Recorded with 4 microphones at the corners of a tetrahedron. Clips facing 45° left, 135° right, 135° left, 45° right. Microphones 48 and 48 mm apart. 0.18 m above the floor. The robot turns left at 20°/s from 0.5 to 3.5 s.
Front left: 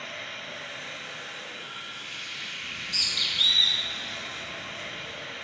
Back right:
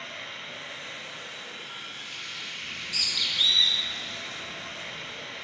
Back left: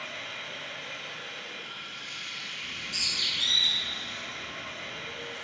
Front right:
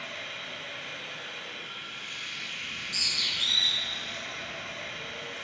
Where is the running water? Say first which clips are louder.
Front left 1 dB, even; 40° left, 1.3 m; by 5.4 s 20° right, 1.3 m.